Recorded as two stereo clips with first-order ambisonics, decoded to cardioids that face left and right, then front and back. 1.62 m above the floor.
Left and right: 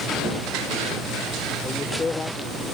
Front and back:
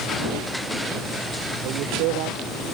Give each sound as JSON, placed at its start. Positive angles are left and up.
{"t": 1.6, "sound": "a man speaking", "azimuth_deg": 165}